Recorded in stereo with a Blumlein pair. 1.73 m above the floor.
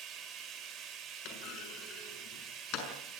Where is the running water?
25° right, 5 m.